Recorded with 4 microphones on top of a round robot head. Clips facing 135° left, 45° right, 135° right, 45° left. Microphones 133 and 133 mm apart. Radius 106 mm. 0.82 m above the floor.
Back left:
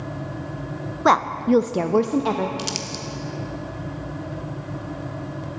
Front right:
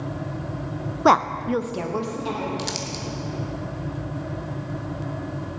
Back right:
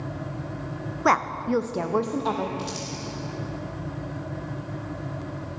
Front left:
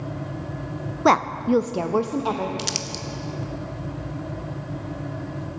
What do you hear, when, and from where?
1.1 s a woman speaking: 20° left, 0.5 m; by 2.5 s 130° left, 1.1 m
2.6 s crumpling: 55° left, 0.9 m